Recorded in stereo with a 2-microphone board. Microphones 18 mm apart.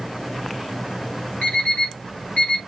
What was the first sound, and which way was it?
An alarm clock, 70° left (ahead or behind).